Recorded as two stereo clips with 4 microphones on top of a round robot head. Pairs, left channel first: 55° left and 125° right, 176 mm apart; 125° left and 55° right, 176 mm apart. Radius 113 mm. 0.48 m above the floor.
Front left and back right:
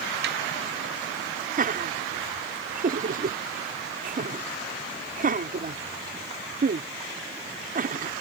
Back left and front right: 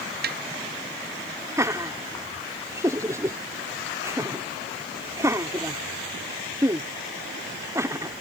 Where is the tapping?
95° right.